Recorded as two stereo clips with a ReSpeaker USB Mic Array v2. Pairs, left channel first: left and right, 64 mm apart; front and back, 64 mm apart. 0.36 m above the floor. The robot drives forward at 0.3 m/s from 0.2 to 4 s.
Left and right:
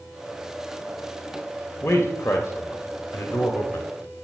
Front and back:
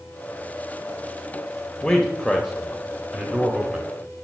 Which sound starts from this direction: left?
A man speaking, at 1.8 s.